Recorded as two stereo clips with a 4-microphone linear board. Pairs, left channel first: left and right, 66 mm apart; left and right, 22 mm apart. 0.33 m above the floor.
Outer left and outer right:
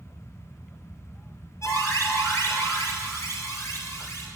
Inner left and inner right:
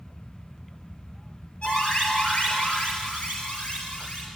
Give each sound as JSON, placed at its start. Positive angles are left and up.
{"t": 1.6, "sound": "an alarm", "side_deg": 60, "distance_m": 4.5}